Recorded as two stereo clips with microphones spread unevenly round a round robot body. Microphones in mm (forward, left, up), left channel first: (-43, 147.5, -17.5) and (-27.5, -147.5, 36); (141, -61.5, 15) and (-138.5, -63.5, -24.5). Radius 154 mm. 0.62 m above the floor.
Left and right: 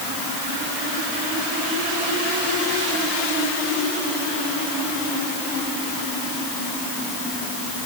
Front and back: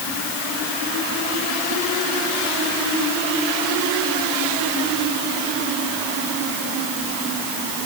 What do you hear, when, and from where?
Only background noise.